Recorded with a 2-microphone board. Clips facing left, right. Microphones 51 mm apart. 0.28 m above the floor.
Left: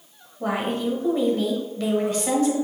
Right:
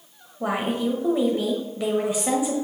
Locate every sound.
0.4 s a woman speaking: 10° right (ahead or behind), 0.9 m